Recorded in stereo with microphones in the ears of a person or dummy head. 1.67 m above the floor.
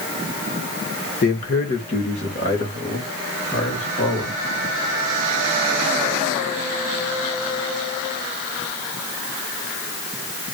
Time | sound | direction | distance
1.2 | a man speaking | 40° left (ahead or behind) | 2 m